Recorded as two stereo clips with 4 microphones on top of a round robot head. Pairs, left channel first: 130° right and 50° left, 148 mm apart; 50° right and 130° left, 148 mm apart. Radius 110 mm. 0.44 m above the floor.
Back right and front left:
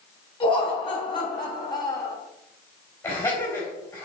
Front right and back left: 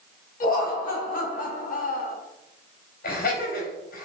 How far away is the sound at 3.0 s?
About 3.5 m.